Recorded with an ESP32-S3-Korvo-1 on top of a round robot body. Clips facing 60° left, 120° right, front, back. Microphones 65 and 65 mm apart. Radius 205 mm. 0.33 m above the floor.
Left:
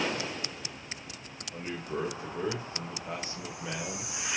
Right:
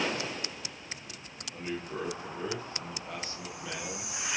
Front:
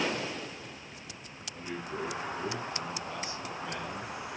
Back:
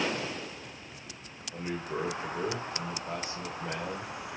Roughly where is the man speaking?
Behind left.